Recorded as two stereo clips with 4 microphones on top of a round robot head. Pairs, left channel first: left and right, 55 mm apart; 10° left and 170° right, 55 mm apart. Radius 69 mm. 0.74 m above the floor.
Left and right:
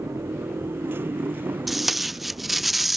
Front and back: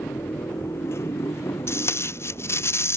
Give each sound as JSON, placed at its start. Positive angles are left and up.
{"t": 0.0, "sound": "a motorcycle", "azimuth_deg": -45}
{"t": 1.7, "sound": "tape being pulled", "azimuth_deg": -5}